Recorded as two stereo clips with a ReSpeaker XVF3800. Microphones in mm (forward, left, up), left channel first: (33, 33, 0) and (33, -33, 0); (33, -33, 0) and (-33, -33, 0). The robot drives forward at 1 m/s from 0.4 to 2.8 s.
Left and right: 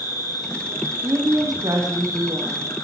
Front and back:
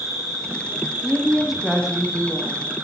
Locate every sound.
0.0 s an insect: 100° left, 6.5 m; by 2.8 s 120° left, 7.5 m
1.0 s a woman speaking: 85° right, 4.5 m; by 2.6 s 105° right, 4.5 m